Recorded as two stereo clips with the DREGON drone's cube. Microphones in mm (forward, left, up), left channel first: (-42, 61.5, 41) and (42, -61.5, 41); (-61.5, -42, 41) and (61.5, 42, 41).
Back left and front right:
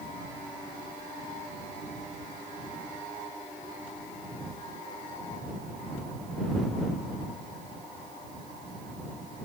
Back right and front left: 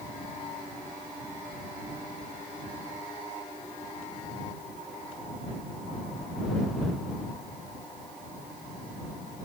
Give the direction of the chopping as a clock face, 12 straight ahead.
No chopping in this recording.